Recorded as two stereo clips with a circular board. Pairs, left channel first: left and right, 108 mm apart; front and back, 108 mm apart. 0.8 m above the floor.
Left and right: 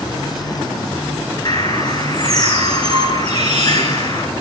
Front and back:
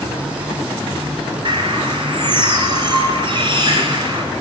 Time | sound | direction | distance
1.4 | a bird | 135° left | 4 m